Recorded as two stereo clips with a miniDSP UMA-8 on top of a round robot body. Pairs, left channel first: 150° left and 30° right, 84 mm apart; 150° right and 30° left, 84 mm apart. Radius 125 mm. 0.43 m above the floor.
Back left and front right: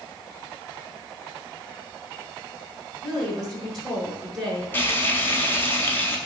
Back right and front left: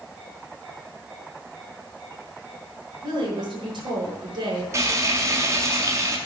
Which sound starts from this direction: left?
Frying, at 4.7 s.